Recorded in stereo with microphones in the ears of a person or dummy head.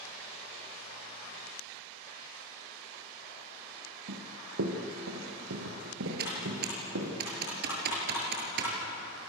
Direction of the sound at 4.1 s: 65° right (ahead or behind).